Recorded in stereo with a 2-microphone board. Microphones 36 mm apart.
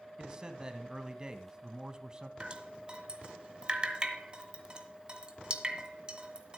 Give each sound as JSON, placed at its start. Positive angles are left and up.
{"t": 0.2, "sound": "a man speaking", "side_deg": -20, "distance_m": 1.6}
{"t": 2.4, "sound": "dripping", "side_deg": -25, "distance_m": 1.9}